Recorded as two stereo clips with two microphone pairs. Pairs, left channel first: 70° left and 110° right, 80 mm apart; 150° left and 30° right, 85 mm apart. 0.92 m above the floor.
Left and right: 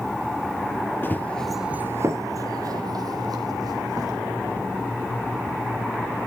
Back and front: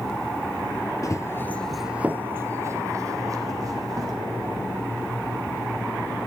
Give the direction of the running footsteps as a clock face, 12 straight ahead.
8 o'clock.